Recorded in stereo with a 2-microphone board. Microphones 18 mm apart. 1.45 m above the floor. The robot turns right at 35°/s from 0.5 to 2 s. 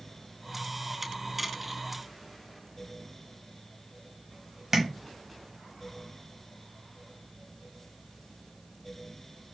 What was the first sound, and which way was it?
Tapping, 25° right (ahead or behind).